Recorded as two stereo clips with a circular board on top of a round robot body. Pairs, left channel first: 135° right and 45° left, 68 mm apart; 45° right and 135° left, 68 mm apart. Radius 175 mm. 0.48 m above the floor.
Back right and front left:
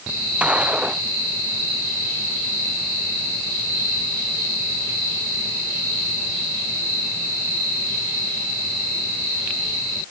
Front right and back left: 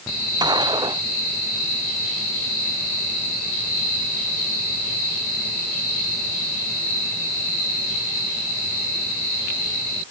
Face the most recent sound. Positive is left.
turn(degrees=120)